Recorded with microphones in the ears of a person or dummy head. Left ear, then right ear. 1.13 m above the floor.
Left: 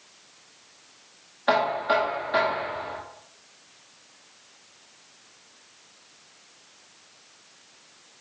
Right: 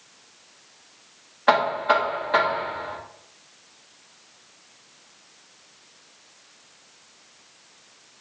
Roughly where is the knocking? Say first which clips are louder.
Right 3 dB; right.